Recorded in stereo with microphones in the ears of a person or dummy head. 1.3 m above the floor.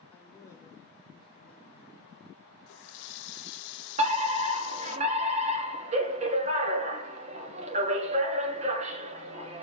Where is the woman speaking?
5° left (ahead or behind), 2 m; by 2.6 s 30° left (ahead or behind), 5.5 m.